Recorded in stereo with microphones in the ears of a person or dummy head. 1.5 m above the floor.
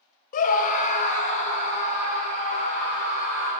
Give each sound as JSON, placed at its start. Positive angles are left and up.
{"t": 0.3, "sound": "a scream", "side_deg": 45, "distance_m": 0.5}